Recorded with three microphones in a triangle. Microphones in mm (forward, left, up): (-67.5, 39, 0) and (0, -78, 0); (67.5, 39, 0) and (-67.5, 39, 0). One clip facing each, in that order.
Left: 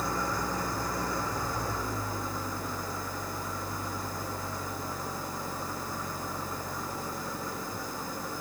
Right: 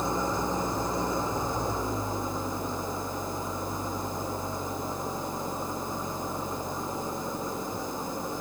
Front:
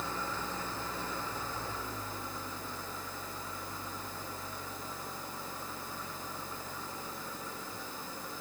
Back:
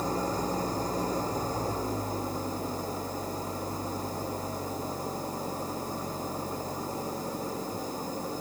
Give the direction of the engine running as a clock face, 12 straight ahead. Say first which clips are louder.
Right 3 dB, back 9 dB; 4 o'clock.